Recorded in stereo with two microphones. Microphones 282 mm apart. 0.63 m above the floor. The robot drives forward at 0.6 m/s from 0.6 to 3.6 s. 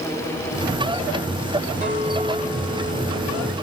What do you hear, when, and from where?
1.8 s a clink: 25° right (ahead or behind), 1.9 m; by 3.5 s 20° right (ahead or behind), 3 m